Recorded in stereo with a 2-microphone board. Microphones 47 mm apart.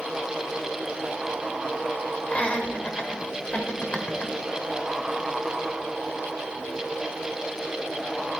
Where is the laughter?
30° left (ahead or behind), 1.7 m.